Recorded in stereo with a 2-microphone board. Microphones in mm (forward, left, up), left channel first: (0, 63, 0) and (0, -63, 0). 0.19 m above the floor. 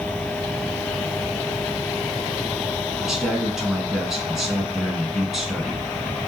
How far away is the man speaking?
About 1.6 m.